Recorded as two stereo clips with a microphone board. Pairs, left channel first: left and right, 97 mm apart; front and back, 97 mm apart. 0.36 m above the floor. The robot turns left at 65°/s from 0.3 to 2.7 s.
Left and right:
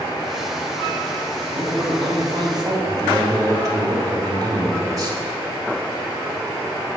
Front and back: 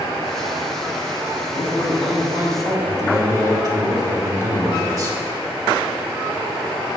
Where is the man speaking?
60° right, 2 m; by 5.2 s 135° right, 2 m.